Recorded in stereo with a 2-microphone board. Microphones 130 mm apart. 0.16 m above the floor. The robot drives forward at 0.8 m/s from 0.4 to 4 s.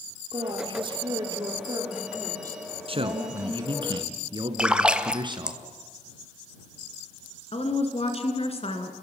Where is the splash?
5° right (ahead or behind), 0.7 m.